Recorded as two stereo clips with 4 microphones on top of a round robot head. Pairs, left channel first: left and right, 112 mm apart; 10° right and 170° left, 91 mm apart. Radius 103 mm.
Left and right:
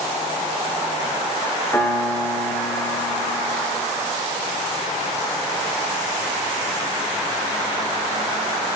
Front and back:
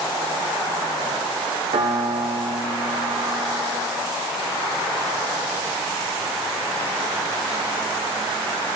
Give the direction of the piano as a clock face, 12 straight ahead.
7 o'clock.